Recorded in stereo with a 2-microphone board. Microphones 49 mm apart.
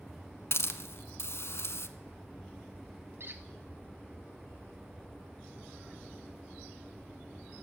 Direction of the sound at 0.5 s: 60° left (ahead or behind).